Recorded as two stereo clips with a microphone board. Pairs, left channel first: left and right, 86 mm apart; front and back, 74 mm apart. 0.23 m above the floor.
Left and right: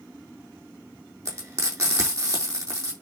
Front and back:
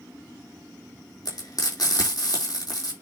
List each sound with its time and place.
1.2 s frying: 35° right, 4.5 m